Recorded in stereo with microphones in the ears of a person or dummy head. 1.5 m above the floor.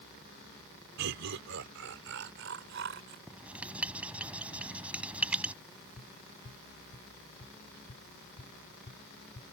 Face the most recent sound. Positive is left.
turn(degrees=30)  # may be behind; listen again after turning